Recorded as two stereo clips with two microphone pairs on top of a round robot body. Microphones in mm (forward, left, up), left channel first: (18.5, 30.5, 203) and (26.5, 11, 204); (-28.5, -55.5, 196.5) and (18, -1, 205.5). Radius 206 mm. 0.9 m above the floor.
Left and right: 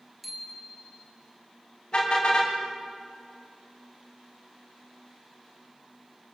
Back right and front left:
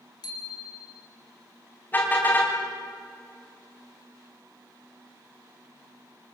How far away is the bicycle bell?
About 4 m.